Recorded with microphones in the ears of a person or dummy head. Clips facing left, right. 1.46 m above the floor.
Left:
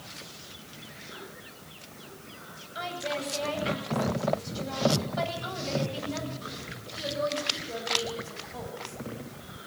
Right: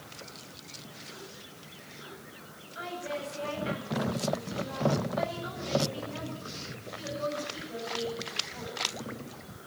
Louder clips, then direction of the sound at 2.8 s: Left 3 dB; 65° left (ahead or behind).